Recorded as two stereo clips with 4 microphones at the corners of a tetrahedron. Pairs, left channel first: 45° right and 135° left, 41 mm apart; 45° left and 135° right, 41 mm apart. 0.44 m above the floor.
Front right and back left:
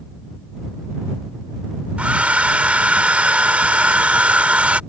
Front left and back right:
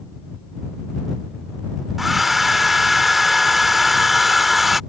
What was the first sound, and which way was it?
A hair dryer, 145° left.